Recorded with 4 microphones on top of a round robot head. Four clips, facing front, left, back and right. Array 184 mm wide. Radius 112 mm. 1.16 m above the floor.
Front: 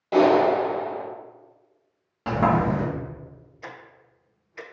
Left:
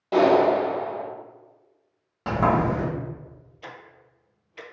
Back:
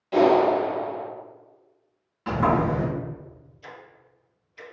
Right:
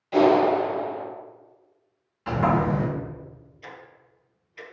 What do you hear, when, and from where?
0.1 s a clap: 50° left, 2 m
2.3 s a sliding door: 55° left, 1.6 m
3.6 s ticking: 30° left, 0.6 m